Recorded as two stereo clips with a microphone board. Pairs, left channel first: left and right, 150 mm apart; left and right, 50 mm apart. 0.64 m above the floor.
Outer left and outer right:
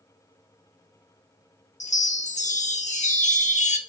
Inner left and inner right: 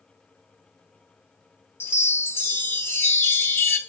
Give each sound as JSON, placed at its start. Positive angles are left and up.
{"t": 1.8, "sound": "a chime", "side_deg": 50, "distance_m": 1.0}